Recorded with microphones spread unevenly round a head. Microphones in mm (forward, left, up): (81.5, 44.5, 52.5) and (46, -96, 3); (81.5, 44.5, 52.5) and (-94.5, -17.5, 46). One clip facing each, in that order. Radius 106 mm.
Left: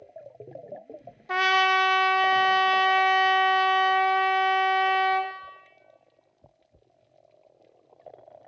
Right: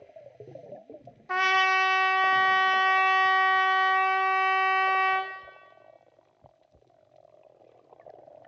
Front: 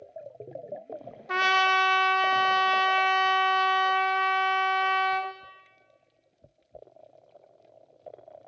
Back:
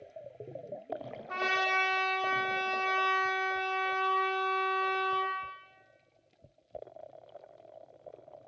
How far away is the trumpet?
About 0.7 m.